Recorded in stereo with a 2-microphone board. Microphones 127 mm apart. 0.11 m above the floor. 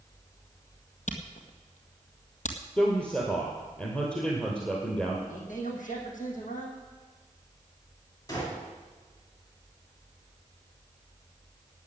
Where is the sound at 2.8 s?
10° left (ahead or behind), 2.5 m.